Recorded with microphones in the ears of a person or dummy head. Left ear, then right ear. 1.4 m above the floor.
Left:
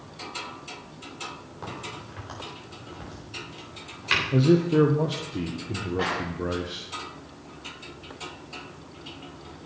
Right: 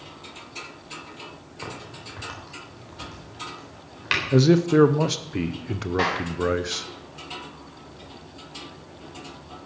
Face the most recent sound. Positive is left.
turn(degrees=-65)  # may be behind; listen again after turning